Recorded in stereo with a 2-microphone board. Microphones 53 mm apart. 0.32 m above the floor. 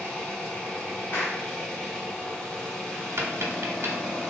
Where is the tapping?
55° right (ahead or behind), 0.9 m.